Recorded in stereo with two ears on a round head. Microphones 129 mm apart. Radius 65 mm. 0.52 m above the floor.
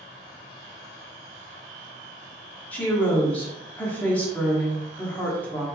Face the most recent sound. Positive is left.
turn(degrees=10)  # may be behind; listen again after turning